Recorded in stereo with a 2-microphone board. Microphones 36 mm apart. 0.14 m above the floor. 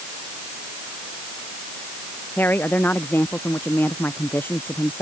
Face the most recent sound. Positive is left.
turn(degrees=75)  # may be behind; listen again after turning